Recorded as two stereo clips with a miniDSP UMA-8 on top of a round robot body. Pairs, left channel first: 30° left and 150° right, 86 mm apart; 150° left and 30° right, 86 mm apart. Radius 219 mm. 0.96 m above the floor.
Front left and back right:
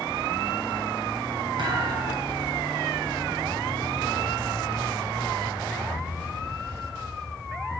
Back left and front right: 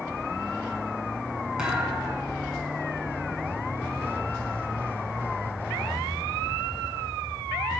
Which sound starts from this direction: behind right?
A thud, at 1.6 s.